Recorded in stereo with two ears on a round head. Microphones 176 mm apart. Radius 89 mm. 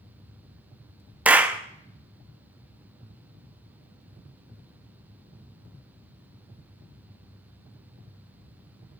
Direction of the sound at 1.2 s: 10° right (ahead or behind).